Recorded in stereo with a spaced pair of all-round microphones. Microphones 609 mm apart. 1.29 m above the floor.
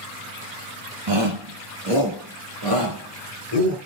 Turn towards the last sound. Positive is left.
turn(degrees=-65)  # may be behind; listen again after turning